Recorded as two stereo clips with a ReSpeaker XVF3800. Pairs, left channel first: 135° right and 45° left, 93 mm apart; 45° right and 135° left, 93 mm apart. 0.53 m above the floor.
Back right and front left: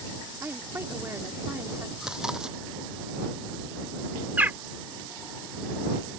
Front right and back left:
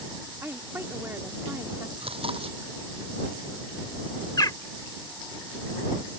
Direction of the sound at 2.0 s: 130° left.